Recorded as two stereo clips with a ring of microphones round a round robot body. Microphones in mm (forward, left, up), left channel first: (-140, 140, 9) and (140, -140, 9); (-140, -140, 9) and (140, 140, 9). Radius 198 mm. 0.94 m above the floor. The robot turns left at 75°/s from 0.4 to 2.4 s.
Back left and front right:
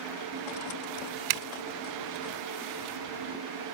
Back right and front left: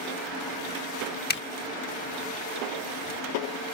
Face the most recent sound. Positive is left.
turn(degrees=-155)